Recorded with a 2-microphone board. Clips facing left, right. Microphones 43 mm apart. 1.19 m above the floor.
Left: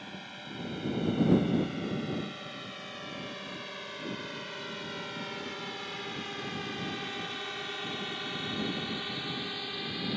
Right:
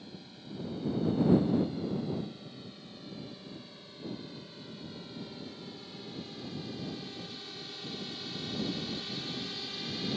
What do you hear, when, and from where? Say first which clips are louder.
0.0 s a drone: left 5 dB; 65° left (ahead or behind); by 10.2 s 20° left (ahead or behind)